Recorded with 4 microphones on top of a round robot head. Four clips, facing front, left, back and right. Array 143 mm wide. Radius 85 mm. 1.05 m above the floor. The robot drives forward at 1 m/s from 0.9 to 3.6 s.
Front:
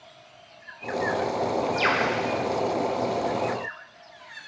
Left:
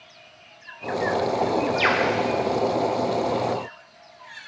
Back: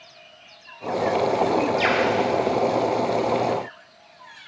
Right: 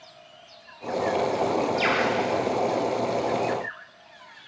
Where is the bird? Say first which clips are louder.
Left 2 dB, back 3 dB; 50° left, 0.6 m; by 2.1 s 140° left, 0.6 m.